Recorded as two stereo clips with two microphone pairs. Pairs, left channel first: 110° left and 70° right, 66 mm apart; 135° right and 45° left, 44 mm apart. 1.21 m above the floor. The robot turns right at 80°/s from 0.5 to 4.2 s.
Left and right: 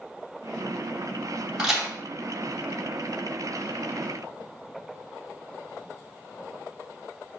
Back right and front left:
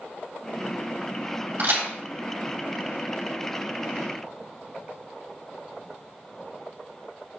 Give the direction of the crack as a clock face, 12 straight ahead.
12 o'clock.